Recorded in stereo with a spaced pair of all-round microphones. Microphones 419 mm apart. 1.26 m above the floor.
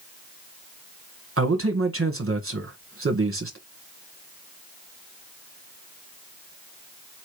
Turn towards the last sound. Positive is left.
turn(degrees=-30)  # may be behind; listen again after turning